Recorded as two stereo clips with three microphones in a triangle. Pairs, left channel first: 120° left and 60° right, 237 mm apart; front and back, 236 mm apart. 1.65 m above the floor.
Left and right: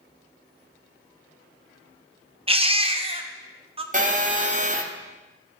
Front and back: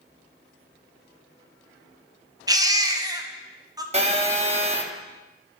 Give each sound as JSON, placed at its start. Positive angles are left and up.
{"t": 2.5, "sound": "a baby crying", "azimuth_deg": -115, "distance_m": 0.5}
{"t": 3.9, "sound": "a phone buzzing", "azimuth_deg": -120, "distance_m": 0.7}